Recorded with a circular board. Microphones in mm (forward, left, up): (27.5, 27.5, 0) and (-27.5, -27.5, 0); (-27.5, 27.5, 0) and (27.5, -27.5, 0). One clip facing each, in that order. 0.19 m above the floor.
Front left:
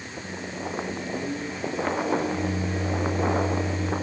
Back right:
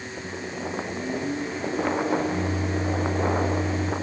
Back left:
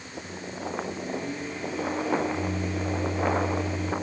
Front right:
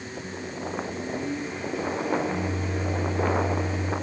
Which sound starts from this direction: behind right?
A microwave, at 0.2 s.